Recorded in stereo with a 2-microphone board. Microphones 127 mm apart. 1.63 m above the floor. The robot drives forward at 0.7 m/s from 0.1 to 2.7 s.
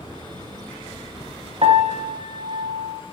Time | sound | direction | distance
1.6 | a piano | 55° right (ahead or behind) | 1.1 m